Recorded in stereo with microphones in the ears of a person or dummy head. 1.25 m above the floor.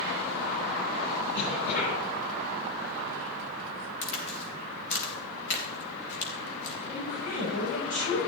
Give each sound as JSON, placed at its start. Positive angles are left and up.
{"t": 1.3, "sound": "a cough", "side_deg": 60, "distance_m": 9.5}
{"t": 4.0, "sound": "a crack", "side_deg": 70, "distance_m": 4.5}
{"t": 6.9, "sound": "a woman speaking", "side_deg": 60, "distance_m": 7.5}